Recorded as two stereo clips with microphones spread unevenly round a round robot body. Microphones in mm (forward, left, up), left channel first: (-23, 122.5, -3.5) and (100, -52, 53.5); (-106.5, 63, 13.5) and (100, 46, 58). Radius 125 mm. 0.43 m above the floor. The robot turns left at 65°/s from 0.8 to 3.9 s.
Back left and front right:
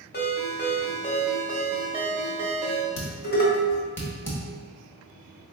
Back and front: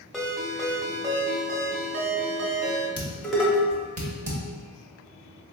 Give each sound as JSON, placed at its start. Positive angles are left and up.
{"t": 0.1, "sound": "a ringtone", "azimuth_deg": 90, "distance_m": 1.1}
{"t": 3.0, "sound": "dishes clattering", "azimuth_deg": 115, "distance_m": 1.2}